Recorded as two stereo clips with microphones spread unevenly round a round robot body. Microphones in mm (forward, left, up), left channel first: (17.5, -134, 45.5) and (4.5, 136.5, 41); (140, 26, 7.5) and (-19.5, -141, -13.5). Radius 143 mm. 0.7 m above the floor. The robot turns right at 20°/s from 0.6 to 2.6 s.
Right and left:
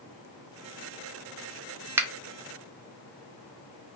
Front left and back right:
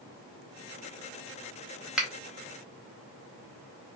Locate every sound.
2.0 s a finger snap: 160° left, 0.6 m